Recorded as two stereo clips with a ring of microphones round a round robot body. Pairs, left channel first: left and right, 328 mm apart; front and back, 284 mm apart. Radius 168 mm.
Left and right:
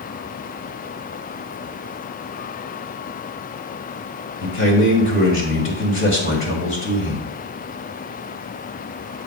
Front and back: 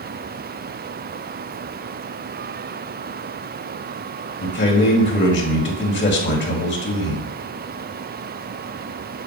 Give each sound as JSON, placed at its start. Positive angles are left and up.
{"t": 4.4, "sound": "a man speaking", "azimuth_deg": 45, "distance_m": 2.0}